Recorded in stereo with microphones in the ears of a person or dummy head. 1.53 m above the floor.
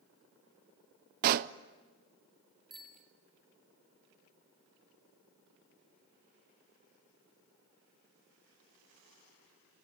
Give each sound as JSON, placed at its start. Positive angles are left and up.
{"t": 1.2, "sound": "a pop", "side_deg": -50, "distance_m": 0.5}
{"t": 2.7, "sound": "a bicycle bell", "side_deg": 0, "distance_m": 2.5}